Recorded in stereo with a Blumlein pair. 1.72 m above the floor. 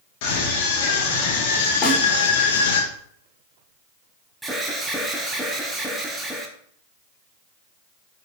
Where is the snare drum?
20° left, 6.5 m.